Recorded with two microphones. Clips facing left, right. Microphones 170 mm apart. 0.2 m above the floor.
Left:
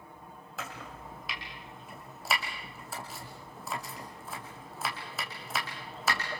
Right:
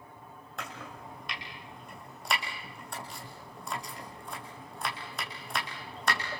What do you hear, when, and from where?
0.6 s chopping: 5° left (ahead or behind), 4.5 m